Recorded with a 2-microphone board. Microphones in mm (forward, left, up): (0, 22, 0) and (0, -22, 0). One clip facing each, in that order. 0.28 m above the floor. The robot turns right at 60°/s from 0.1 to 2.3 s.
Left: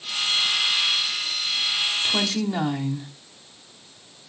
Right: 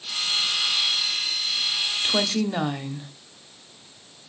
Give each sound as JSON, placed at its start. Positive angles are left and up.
{"t": 2.0, "sound": "a woman speaking", "side_deg": -20, "distance_m": 1.1}